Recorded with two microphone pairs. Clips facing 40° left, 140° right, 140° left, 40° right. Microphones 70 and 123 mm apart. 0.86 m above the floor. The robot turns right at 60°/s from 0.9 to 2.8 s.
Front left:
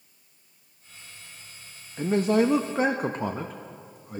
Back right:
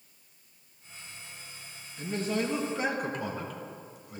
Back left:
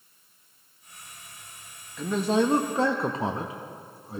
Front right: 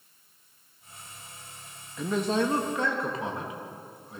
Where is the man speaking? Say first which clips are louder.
Front left 9 dB, back left 3 dB; 35° left, 0.7 m; by 4.2 s 85° left, 0.7 m.